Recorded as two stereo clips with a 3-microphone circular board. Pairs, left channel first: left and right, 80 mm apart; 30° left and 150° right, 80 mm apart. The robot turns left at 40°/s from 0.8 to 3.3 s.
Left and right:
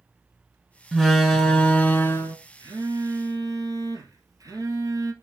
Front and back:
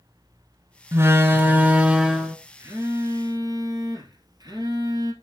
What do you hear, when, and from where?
0.9 s a door slam: 175° right, 1.3 m; by 2.4 s 125° left, 1.3 m
2.6 s a phone buzzing: 100° right, 2 m; by 5.1 s 125° right, 2 m